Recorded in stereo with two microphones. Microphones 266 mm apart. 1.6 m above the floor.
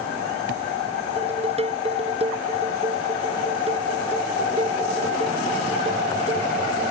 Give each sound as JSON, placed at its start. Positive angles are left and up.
{"t": 1.2, "sound": "dishes clattering", "side_deg": -20}